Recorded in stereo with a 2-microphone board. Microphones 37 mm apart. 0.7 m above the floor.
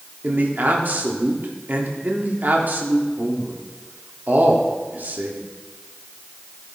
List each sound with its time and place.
0.2 s a man speaking: 60° right (ahead or behind), 1.7 m